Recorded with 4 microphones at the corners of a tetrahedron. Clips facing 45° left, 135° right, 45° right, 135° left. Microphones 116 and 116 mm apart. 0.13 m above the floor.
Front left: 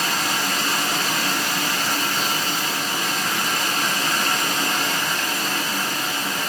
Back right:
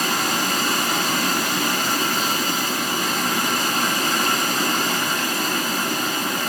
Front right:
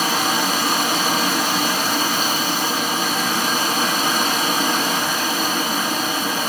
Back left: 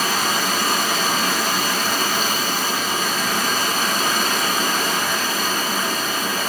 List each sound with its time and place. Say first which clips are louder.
0.0 s running water: back right 2 dB, front right 2 dB; 115° right, 2 m